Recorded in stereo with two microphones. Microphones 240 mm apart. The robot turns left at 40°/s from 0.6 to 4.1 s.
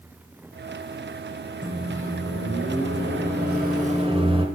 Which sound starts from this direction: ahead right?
A microwave, at 1.6 s.